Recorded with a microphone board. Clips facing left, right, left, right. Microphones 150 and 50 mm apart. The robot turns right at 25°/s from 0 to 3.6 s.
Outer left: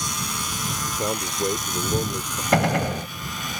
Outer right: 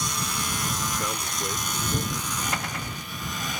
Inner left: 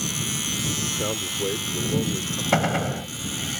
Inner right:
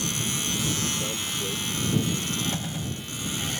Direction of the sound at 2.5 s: 75° left (ahead or behind).